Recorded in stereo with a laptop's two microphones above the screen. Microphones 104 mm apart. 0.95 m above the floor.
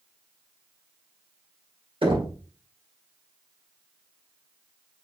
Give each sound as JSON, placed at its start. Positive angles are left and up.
{"t": 2.0, "sound": "knocking", "side_deg": -50, "distance_m": 1.8}